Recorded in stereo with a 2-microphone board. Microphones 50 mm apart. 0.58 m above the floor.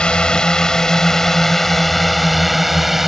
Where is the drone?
20° left (ahead or behind); by 3.1 s 5° right (ahead or behind).